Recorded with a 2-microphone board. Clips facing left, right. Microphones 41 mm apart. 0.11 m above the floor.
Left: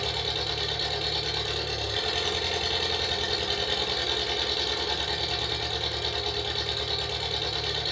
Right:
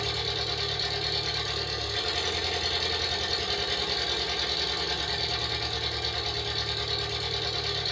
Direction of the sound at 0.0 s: 35° left (ahead or behind).